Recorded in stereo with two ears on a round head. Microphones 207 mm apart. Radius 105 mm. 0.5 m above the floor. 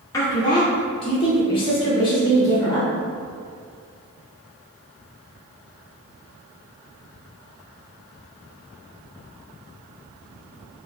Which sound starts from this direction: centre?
A woman speaking, at 0.1 s.